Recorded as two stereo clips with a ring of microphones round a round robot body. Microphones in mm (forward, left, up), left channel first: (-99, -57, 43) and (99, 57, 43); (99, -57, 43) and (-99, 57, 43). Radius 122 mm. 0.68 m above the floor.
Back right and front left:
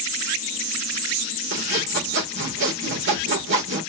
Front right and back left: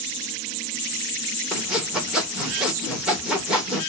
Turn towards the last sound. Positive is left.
turn(degrees=65)